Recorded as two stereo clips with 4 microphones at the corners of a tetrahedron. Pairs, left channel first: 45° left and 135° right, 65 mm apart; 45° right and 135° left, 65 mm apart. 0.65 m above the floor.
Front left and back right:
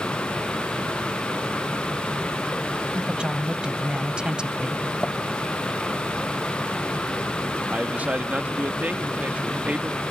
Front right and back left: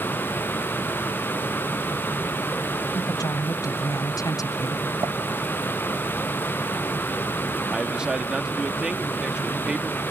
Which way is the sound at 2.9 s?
60° right.